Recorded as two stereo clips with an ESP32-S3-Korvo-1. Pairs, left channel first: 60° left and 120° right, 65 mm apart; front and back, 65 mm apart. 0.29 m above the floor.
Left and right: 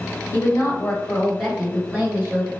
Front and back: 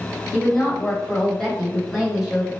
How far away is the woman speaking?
About 1.4 m.